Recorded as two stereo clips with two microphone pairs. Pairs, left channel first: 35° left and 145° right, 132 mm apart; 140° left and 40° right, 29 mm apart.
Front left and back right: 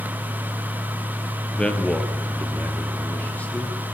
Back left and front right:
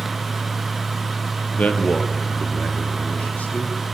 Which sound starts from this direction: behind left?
A man speaking, at 1.6 s.